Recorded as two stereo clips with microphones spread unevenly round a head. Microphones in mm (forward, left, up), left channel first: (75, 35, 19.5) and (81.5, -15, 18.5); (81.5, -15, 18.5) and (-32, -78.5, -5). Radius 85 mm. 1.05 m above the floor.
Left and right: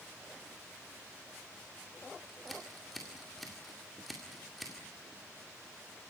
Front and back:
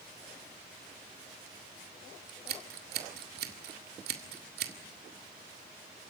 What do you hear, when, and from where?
2.3 s scissors: 175° right, 2.0 m